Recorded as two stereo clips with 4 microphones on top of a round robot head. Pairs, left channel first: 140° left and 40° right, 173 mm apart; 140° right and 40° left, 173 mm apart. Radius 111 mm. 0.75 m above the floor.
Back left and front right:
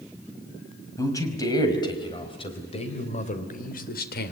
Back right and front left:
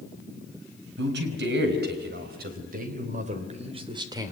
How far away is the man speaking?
About 5 m.